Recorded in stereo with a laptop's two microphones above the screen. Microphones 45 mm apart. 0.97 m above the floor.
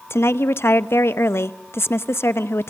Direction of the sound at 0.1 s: 70° left (ahead or behind).